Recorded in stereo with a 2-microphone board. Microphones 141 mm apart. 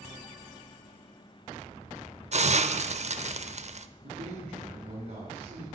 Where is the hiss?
50° right (ahead or behind), 0.6 m.